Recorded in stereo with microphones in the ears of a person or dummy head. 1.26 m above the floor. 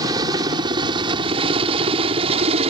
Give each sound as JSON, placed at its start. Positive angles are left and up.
{"t": 0.0, "sound": "a helicopter", "side_deg": -25}